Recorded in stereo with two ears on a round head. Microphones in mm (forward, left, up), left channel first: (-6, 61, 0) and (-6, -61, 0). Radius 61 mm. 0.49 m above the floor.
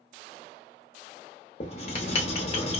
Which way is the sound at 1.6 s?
45° left (ahead or behind).